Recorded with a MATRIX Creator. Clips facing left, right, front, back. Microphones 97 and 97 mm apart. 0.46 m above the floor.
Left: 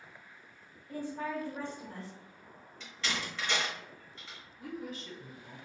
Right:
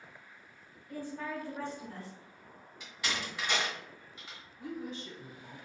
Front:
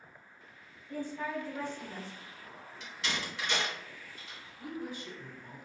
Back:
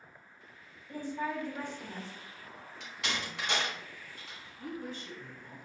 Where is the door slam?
165° right, 1.2 m.